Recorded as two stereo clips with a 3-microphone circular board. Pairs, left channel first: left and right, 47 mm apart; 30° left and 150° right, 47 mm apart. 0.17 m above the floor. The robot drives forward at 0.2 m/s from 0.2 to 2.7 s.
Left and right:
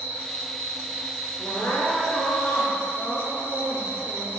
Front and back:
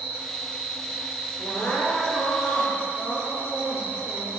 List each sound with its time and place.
0.0 s an insect: 115° left, 1.9 m; by 4.4 s 130° left, 2 m
1.4 s crying: 65° left, 0.9 m; by 4.3 s 85° left, 0.8 m